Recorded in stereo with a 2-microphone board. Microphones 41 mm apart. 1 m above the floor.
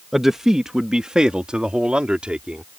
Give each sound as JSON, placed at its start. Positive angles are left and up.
{"t": 0.1, "sound": "a man speaking", "side_deg": -10}